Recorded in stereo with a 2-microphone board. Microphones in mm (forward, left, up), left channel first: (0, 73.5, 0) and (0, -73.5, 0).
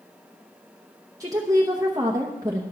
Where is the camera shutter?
I don't hear a camera shutter.